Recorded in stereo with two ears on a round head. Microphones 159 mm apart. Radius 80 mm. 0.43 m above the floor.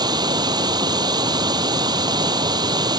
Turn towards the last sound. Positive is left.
turn(degrees=-25)  # may be behind; listen again after turning